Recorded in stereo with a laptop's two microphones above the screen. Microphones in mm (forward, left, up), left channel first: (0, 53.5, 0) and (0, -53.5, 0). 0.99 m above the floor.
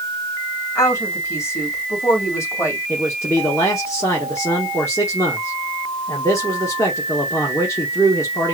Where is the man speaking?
30° left (ahead or behind), 1.4 m.